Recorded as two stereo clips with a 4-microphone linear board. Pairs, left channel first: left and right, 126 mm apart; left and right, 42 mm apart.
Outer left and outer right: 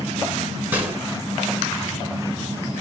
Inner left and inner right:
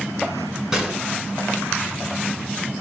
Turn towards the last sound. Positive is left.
turn(degrees=-15)  # may be behind; listen again after turning